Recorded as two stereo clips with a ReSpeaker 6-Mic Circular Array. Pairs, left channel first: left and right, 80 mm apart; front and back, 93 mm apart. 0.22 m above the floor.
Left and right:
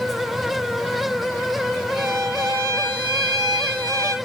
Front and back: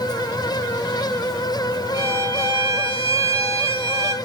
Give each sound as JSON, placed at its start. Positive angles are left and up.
{"t": 1.9, "sound": "a violin", "azimuth_deg": 125, "distance_m": 5.5}